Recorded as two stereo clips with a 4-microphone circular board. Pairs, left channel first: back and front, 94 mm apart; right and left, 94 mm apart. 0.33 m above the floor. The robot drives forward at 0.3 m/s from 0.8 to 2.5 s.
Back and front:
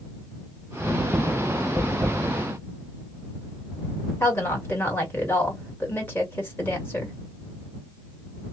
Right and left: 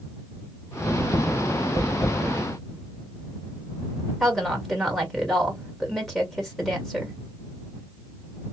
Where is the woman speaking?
170° right, 1.4 m.